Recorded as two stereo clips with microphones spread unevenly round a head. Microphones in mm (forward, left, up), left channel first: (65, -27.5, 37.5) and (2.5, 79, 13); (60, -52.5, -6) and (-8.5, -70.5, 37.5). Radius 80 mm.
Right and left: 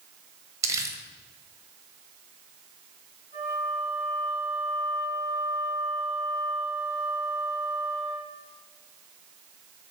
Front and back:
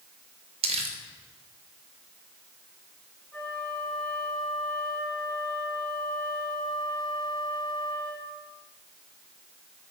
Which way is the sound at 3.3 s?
75° right.